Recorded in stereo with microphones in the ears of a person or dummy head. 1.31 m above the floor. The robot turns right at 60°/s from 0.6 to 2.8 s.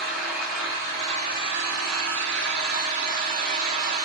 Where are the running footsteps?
I don't hear running footsteps.